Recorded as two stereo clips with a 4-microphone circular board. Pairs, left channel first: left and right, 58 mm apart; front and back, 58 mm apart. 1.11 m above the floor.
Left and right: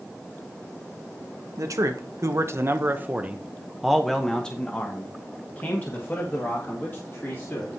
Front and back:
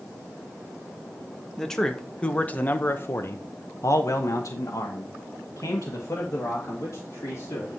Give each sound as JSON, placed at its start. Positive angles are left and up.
{"t": 1.6, "sound": "a man speaking", "azimuth_deg": -80, "distance_m": 1.3}